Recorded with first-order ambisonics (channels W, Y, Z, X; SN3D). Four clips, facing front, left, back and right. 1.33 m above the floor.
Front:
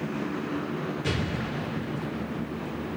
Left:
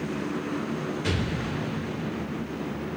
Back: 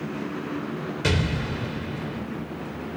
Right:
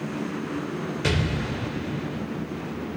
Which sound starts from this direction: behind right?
An explosion, at 1.0 s.